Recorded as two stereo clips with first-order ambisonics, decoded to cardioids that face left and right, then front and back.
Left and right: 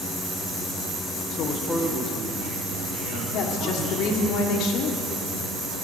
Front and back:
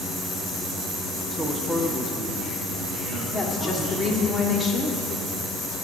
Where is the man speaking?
100° left, 1.1 m; by 4.3 s 70° right, 4 m.